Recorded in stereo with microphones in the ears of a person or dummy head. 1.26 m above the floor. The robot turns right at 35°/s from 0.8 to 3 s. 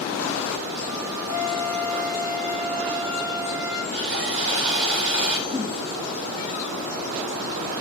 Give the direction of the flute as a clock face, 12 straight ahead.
3 o'clock.